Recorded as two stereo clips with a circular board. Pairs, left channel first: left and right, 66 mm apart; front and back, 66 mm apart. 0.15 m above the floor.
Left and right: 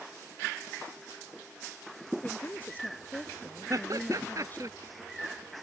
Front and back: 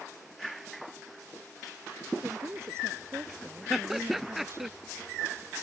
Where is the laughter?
95° right.